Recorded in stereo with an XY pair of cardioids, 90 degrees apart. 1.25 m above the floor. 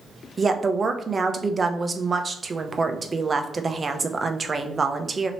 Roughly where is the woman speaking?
Ahead right.